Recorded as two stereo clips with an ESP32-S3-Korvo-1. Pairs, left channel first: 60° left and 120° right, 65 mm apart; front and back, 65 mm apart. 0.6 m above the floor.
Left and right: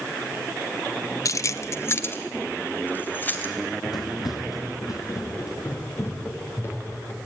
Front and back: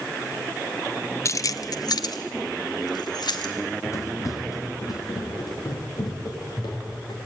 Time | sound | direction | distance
1.2 | keys jangling | 35° left | 0.6 m
3.6 | running footsteps | 50° left | 3 m